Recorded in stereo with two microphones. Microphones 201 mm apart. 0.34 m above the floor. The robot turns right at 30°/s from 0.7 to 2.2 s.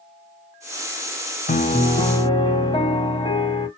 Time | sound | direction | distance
1.5 | a piano | 45° left (ahead or behind) | 0.7 m